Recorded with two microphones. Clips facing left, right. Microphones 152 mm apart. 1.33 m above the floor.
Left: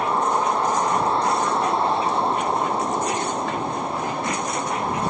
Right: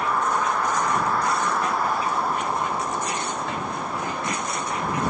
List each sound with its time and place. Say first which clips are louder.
0.0 s a vehicle: left 3 dB; 25° left (ahead or behind)